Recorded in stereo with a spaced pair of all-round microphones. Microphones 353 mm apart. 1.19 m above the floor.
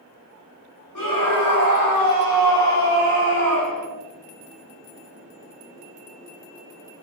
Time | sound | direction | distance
0.9 | a scream | 65° left (ahead or behind) | 5 m